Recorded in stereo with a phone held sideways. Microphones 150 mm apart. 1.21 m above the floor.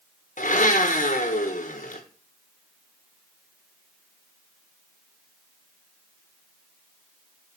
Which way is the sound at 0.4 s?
60° left (ahead or behind).